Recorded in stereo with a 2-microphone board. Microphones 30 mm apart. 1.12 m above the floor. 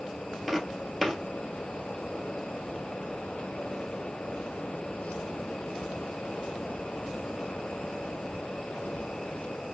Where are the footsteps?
Centre (ahead or behind), 1.7 m.